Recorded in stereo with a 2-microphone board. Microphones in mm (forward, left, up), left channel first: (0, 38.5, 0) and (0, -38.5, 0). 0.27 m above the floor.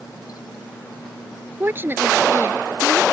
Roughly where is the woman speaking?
Right.